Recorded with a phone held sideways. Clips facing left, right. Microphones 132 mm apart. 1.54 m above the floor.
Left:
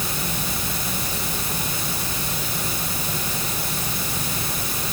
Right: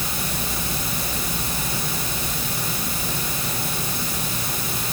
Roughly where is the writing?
No writing in this recording.